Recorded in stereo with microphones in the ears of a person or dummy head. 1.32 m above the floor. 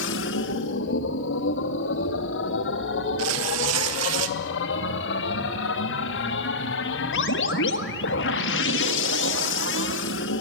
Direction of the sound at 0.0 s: 70° left (ahead or behind).